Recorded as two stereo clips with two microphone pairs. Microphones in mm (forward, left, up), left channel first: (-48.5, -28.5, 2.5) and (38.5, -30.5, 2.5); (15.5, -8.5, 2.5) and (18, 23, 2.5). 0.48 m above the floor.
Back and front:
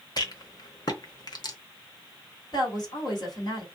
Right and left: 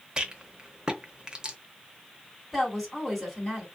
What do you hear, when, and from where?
0.2 s a rattle: 145° left, 0.8 m
2.5 s a woman speaking: straight behind, 2 m